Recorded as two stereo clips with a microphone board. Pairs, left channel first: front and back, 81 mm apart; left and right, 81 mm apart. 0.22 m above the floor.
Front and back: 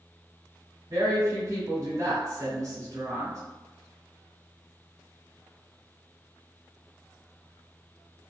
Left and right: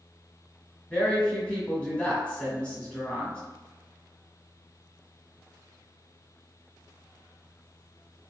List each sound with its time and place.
0.9 s a woman speaking: 160° left, 1.3 m